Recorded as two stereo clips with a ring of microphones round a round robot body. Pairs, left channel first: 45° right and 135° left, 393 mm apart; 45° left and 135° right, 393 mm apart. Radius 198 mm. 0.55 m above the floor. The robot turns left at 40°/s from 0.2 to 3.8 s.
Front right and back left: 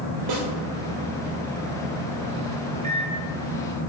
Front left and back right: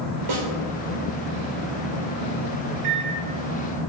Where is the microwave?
155° right, 1.4 m; by 3.2 s 170° right, 1.4 m.